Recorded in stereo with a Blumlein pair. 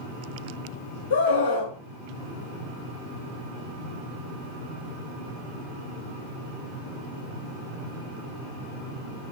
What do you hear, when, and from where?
1.1 s a scream: 55° left, 1.1 m